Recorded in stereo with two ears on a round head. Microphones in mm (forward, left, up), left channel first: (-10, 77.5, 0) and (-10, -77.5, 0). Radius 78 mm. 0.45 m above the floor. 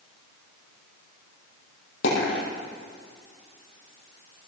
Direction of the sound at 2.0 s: 75° left (ahead or behind).